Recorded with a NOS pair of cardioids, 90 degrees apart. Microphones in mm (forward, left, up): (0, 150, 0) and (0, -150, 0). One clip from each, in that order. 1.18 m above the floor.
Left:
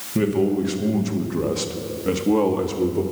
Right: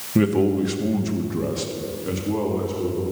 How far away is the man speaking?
About 2 m.